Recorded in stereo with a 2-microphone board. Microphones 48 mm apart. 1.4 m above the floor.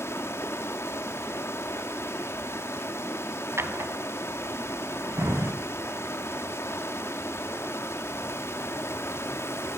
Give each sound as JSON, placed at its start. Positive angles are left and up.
{"t": 0.0, "sound": "running water", "side_deg": 60, "distance_m": 2.5}
{"t": 3.6, "sound": "a drawer", "side_deg": -60, "distance_m": 2.5}